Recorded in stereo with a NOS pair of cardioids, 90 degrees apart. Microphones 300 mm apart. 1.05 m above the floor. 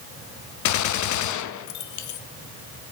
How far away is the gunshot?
About 0.7 m.